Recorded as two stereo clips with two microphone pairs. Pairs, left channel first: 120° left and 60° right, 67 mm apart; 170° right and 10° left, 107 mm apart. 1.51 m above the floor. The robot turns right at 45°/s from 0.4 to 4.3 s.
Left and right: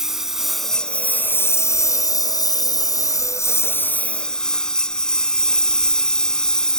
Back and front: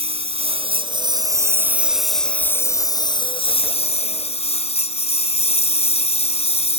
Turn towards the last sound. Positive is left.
turn(degrees=-160)